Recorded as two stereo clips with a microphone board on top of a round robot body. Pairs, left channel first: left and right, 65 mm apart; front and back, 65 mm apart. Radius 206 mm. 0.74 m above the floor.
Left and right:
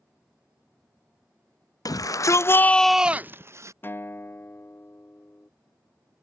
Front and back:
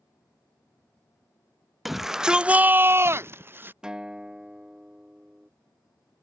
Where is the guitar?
110° left.